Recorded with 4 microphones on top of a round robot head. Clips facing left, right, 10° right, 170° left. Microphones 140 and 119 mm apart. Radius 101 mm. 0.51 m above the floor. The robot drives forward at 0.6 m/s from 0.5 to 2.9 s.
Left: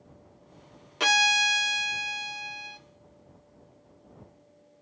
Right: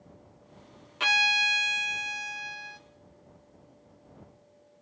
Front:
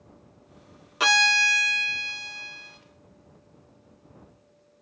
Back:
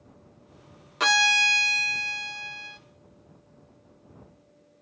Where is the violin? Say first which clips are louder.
Left 4 dB, even; 70° left, 0.6 m; by 2.8 s 155° left, 1.1 m.